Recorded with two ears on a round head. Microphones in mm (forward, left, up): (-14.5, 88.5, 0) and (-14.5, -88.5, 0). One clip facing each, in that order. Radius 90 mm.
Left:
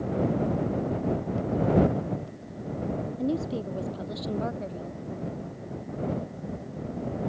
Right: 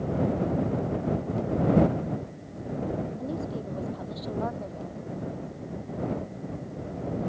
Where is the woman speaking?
30° left (ahead or behind); by 5.0 s 25° left (ahead or behind).